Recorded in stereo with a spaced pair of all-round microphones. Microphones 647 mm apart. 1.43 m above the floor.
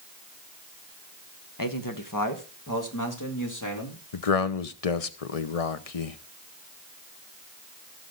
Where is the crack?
I don't hear a crack.